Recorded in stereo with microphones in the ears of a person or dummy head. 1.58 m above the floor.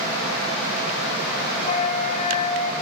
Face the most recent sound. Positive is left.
turn(degrees=40)  # may be behind; listen again after turning